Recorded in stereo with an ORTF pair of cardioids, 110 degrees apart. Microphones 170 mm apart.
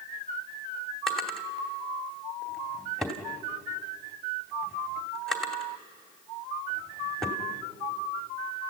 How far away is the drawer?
About 2.5 m.